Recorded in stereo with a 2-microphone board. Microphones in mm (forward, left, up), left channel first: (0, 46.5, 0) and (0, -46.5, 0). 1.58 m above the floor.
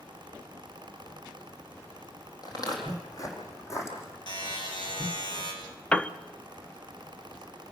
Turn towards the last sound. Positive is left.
turn(degrees=10)  # may be behind; listen again after turning